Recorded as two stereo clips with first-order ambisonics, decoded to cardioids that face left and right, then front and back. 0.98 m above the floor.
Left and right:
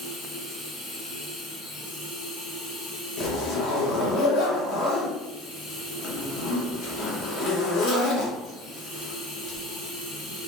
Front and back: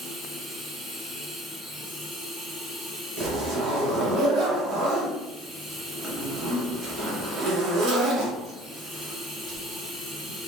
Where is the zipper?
125° left, 0.7 m.